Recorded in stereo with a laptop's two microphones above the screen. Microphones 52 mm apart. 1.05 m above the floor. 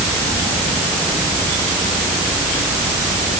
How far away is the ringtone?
No ringtone in this recording.